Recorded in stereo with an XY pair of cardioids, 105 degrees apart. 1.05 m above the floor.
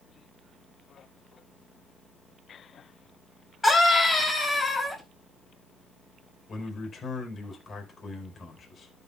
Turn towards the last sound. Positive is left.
turn(degrees=40)